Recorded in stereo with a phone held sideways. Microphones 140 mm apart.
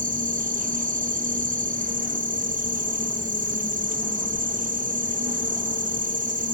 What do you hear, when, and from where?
0.0 s an insect: 70° right (ahead or behind)